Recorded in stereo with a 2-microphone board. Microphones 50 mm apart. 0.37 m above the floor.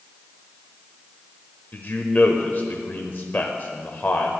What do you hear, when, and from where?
1.7 s a man speaking: 40° left (ahead or behind), 1.0 m